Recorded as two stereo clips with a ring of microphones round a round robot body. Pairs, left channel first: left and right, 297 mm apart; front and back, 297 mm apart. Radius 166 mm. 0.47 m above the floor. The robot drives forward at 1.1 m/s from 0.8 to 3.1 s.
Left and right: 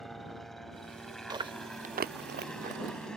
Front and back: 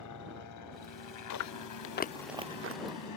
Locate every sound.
0.0 s a helicopter: straight ahead
1.3 s chewing: 15° right; by 2.8 s 150° right